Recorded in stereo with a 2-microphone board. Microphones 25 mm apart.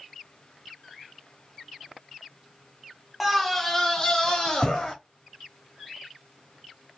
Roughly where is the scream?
Centre.